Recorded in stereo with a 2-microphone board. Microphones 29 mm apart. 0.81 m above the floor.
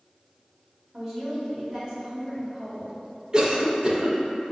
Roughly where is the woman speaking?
Right.